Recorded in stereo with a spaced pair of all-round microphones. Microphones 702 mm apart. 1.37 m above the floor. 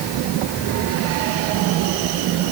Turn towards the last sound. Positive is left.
No sound to turn to.